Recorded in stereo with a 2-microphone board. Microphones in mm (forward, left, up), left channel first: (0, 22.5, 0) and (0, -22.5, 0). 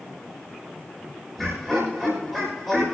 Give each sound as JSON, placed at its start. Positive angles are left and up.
{"t": 1.4, "sound": "laughter", "side_deg": -5, "distance_m": 6.5}